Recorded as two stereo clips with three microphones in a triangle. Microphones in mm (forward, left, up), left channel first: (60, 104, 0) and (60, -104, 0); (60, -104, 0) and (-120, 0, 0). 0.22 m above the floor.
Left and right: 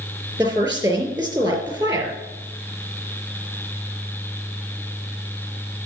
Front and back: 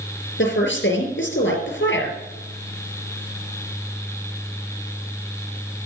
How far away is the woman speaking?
About 4 m.